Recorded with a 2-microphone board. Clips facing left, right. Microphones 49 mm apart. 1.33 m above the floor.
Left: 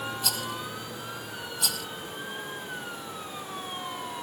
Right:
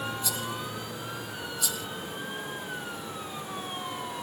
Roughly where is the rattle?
Left.